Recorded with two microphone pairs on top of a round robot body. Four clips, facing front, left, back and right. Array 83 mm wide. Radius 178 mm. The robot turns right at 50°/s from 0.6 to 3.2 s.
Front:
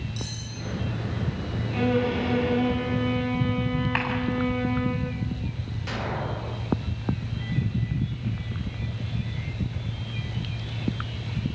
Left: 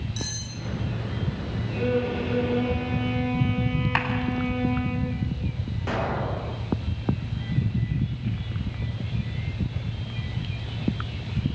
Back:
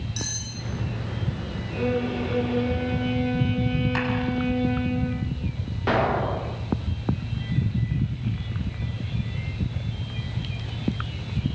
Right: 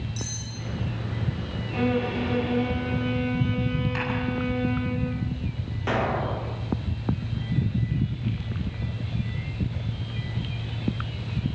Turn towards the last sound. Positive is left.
turn(degrees=-165)